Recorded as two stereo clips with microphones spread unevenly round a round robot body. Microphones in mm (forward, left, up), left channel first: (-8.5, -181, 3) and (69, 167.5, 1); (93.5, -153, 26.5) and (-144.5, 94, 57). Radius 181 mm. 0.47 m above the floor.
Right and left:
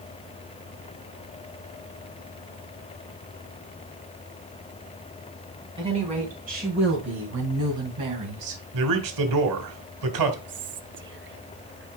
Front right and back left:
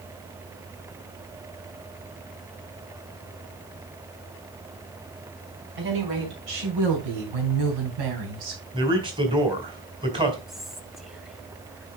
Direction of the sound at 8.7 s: 55° left.